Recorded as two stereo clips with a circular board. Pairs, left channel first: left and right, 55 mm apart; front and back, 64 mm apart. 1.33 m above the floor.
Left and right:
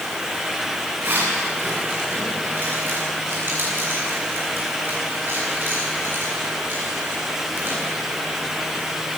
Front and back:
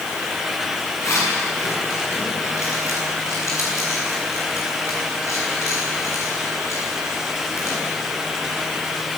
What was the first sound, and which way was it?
A zipper, 40° right.